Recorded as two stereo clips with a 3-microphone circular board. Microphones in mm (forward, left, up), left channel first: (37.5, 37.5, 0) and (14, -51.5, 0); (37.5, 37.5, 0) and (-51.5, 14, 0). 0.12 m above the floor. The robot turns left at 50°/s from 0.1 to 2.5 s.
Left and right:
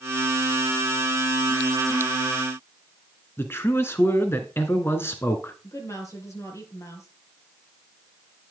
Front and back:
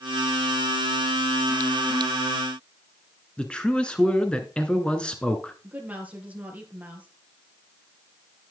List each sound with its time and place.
3.4 s a man speaking: 80° left, 1.3 m
5.6 s a woman speaking: 125° left, 3 m